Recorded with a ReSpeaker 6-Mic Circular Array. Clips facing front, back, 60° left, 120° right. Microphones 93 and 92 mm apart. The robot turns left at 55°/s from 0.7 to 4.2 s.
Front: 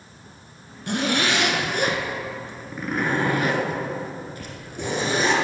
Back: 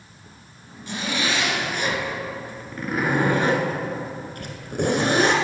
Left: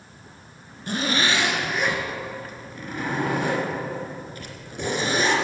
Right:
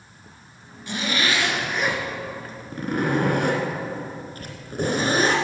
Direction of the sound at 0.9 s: 20° left.